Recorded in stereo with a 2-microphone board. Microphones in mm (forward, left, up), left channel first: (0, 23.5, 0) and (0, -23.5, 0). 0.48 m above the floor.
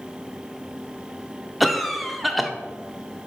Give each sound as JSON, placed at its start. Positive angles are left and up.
{"t": 1.6, "sound": "a cough", "side_deg": 0, "distance_m": 0.7}